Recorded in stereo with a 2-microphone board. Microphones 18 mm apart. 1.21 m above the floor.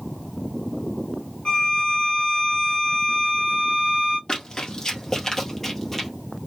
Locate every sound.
1.4 s a violin: 40° left (ahead or behind), 1.3 m
4.3 s running footsteps: 35° left (ahead or behind), 1.5 m; by 6.1 s 10° left (ahead or behind), 1.7 m